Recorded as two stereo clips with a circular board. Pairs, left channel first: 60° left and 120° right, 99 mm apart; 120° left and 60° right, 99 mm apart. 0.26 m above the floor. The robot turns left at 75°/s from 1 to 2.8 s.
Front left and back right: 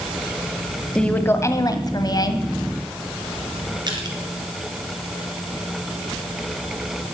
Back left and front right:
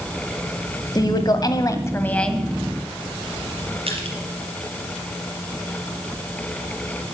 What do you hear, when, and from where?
0.9 s a woman speaking: 135° left, 1.6 m; by 2.5 s 25° left, 1.6 m
3.9 s crushing: 75° right, 3.5 m